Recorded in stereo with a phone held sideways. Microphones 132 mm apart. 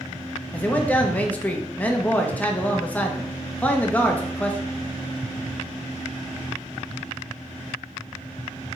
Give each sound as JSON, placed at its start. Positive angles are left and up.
{"t": 0.5, "sound": "a man speaking", "side_deg": 10, "distance_m": 1.0}